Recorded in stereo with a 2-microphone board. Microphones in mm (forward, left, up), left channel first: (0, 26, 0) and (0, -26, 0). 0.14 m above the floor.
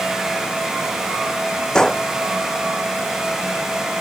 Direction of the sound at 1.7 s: 15° left (ahead or behind).